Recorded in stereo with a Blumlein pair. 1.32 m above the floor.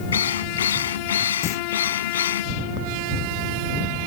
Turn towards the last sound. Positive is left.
turn(degrees=30)